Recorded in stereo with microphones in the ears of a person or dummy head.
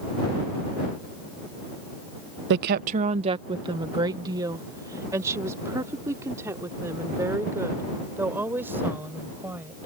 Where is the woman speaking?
70° right (ahead or behind); by 9.9 s 20° right (ahead or behind).